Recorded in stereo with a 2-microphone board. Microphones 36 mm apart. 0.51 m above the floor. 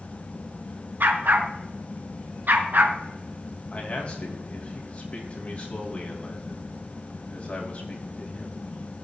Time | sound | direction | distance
1.0 | a dog barking | 60° right (ahead or behind) | 1.6 m
3.7 | a man speaking | 35° left (ahead or behind) | 3 m